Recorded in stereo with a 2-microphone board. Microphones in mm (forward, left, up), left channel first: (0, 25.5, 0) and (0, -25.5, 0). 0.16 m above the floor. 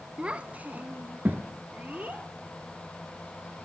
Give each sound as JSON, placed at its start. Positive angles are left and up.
{"t": 0.2, "sound": "a child speaking", "side_deg": -20, "distance_m": 0.7}